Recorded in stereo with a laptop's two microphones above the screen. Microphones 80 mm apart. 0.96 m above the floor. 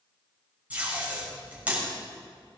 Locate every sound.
0.7 s tape being pulled: 20° right (ahead or behind), 4 m